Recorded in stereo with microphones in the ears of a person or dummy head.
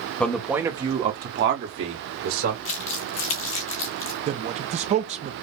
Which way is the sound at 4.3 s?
35° right (ahead or behind).